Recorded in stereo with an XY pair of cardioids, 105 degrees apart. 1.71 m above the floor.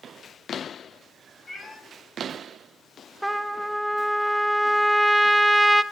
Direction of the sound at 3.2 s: 5° right.